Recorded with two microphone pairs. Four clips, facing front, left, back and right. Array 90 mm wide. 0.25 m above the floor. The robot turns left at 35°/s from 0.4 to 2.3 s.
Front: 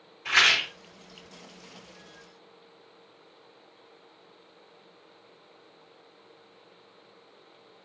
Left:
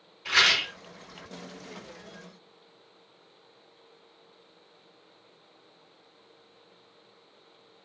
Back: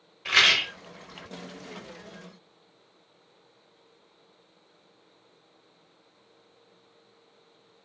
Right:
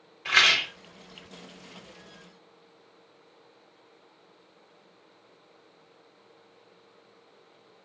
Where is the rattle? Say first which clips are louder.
Right 1 dB, even; 125° right, 1.8 m; by 0.7 s 135° right, 1.8 m.